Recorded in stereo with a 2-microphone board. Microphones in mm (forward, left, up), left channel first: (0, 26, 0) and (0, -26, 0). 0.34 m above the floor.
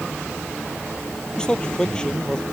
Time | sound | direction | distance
1.4 | a man speaking | 15° left (ahead or behind) | ?